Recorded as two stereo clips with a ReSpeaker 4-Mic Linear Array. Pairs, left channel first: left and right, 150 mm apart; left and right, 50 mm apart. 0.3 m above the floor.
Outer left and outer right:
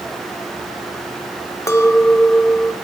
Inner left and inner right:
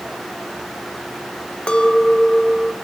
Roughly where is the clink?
Left.